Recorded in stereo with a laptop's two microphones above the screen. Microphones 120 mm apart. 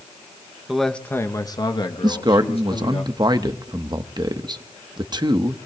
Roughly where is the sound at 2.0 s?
Right.